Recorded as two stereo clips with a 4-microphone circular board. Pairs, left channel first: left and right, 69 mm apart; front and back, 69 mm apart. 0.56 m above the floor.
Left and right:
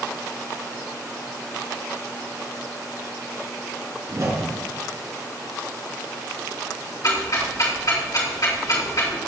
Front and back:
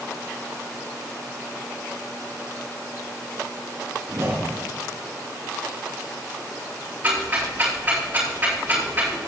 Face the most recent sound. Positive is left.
turn(degrees=115)